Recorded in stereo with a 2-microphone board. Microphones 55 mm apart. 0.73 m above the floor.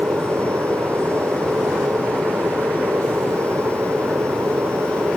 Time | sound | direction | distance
0.0 | an aircraft | 50° right (ahead or behind) | ?